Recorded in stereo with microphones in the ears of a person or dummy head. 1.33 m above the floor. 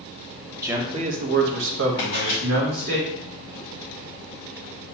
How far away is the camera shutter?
About 1.0 m.